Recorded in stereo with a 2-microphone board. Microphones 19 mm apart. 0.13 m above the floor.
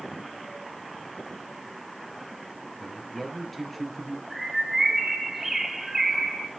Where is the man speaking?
15° left (ahead or behind), 2 m; by 4.2 s centre (ahead or behind), 2.5 m.